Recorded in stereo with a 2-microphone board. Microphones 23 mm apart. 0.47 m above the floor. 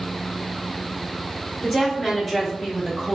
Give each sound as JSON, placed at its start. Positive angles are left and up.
{"t": 1.6, "sound": "a woman speaking", "side_deg": 5, "distance_m": 1.0}